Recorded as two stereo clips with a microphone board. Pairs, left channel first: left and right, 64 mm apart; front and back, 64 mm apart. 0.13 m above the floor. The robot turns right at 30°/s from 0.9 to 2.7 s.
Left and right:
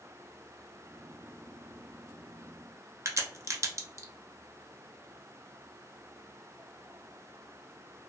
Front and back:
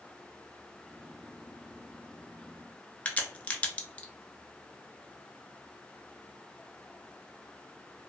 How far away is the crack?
About 0.5 m.